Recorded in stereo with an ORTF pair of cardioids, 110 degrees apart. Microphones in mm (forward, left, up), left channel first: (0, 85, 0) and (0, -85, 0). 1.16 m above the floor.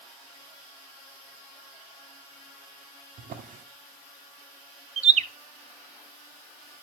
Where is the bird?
40° right, 0.6 m.